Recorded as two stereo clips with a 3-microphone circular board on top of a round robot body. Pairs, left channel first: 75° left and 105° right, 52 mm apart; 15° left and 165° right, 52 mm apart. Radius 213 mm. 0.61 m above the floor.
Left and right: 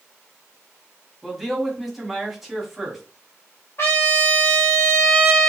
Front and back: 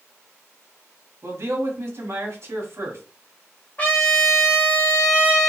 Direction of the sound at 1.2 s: 165° left.